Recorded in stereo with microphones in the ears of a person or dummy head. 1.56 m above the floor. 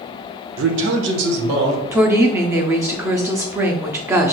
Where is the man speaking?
75° right (ahead or behind), 0.6 m; by 1.8 s 70° right (ahead or behind), 1.5 m.